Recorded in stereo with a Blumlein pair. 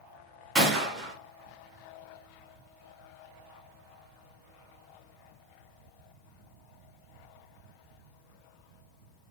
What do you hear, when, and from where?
0.6 s a gunshot: 5° right, 1.3 m